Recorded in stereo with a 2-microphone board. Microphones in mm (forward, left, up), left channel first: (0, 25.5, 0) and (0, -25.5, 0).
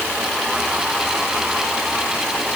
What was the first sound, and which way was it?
Only background noise.